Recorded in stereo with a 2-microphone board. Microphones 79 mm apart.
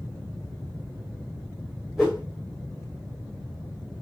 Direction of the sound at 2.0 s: 5° right (ahead or behind).